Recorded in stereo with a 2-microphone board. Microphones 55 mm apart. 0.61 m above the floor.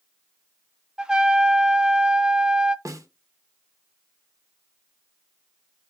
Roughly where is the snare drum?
Right.